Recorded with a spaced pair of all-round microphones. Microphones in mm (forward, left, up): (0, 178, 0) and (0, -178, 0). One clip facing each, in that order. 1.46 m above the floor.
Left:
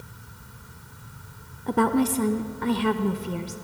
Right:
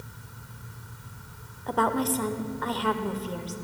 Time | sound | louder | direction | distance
1.7 | a woman speaking | left 5 dB | 35° left (ahead or behind) | 0.6 m